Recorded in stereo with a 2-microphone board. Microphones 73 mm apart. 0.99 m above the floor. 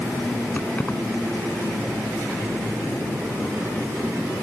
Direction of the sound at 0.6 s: 25° left (ahead or behind).